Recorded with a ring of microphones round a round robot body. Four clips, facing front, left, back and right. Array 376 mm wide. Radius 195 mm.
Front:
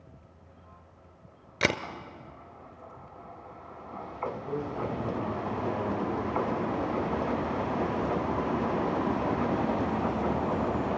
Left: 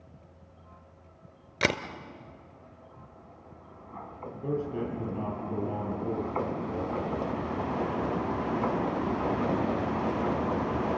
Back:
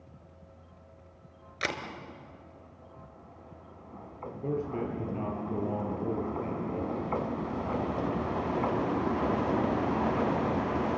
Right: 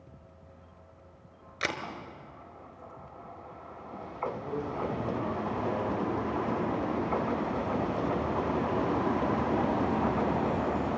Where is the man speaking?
145° left, 7.5 m.